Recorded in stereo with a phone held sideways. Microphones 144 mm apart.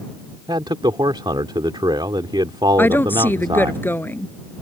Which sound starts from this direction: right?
A man speaking, at 0.5 s.